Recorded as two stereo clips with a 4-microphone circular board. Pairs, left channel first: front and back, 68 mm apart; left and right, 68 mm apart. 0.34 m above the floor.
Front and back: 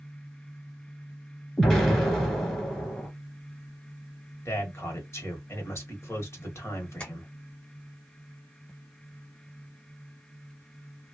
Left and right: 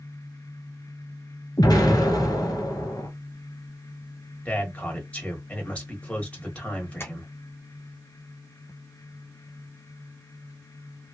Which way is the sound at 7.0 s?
60° left.